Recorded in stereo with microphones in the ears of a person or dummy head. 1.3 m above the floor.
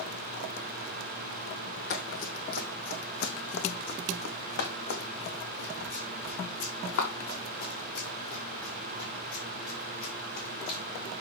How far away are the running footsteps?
About 1.9 m.